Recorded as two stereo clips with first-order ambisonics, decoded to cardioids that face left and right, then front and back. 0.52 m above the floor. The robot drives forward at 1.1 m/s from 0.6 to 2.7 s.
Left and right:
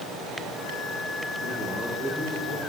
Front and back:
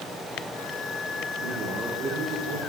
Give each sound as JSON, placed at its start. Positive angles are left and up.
{"t": 1.4, "sound": "a man speaking", "azimuth_deg": 150, "distance_m": 7.0}